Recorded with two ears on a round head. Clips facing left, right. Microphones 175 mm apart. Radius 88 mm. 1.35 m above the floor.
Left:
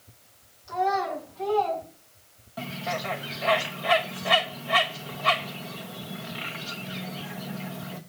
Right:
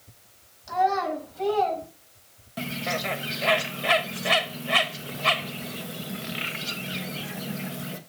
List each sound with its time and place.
0.7 s a child speaking: 70° right (ahead or behind), 5.5 m; by 1.8 s 65° right (ahead or behind), 4.5 m
2.6 s a bird: 30° right (ahead or behind), 1.1 m